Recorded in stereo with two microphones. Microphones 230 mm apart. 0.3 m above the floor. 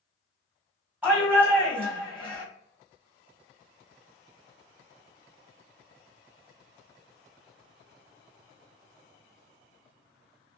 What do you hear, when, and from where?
1.0 s a shout: 10° right (ahead or behind), 1.7 m